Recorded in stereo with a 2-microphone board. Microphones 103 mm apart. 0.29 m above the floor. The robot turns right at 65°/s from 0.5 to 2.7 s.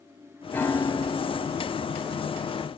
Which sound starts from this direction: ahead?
A piano, at 0.5 s.